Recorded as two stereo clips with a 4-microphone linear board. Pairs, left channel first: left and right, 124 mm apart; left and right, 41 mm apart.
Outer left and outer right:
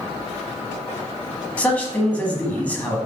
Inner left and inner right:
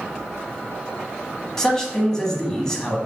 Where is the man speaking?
10° left (ahead or behind), 1.1 m.